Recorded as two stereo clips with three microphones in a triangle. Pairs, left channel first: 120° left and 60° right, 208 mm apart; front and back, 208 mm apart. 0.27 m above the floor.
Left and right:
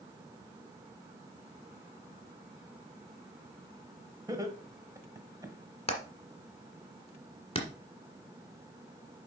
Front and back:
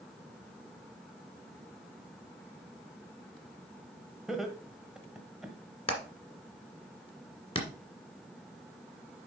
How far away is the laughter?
About 1.2 m.